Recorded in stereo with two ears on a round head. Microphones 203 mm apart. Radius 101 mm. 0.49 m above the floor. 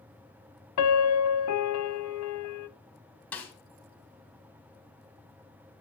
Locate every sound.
0.8 s a piano: 70° left (ahead or behind), 0.8 m
3.3 s a snare drum: 5° left (ahead or behind), 2.5 m